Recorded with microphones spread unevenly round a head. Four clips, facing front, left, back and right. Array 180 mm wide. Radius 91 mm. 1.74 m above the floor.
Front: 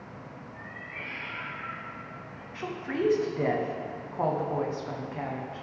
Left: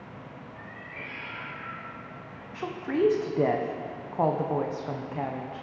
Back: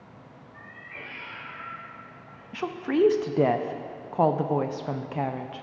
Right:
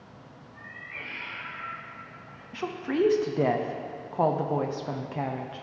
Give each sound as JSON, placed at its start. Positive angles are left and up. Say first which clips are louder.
{"t": 0.5, "sound": "a cat meowing", "louder": "left 2 dB, front 3 dB", "azimuth_deg": -165, "distance_m": 1.9}
{"t": 2.5, "sound": "a woman speaking", "louder": "right 1 dB, back 7 dB", "azimuth_deg": -170, "distance_m": 0.6}